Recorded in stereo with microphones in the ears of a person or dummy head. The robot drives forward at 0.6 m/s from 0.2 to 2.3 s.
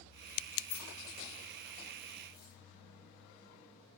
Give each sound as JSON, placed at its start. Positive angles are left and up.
{"t": 0.7, "sound": "keys jangling", "side_deg": 50, "distance_m": 0.8}